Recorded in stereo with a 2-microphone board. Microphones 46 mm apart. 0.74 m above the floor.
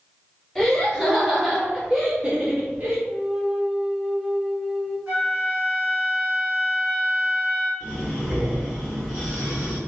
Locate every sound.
0.6 s laughter: 5° left (ahead or behind), 1.6 m; by 3.0 s 45° right (ahead or behind), 0.9 m
3.1 s a flute: 10° right (ahead or behind), 0.5 m
5.1 s a flute: 35° right (ahead or behind), 1.9 m
7.8 s breathing: 30° right (ahead or behind), 1.8 m